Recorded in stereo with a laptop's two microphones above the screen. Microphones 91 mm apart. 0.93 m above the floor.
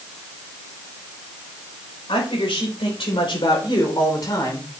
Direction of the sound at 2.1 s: 80° left.